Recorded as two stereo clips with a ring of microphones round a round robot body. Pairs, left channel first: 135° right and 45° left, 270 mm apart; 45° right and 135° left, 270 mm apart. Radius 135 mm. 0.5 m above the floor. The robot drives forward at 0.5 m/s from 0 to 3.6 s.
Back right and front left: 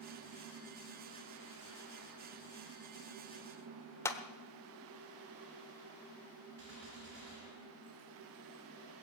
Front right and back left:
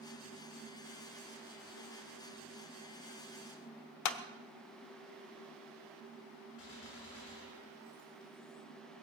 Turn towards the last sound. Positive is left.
turn(degrees=-5)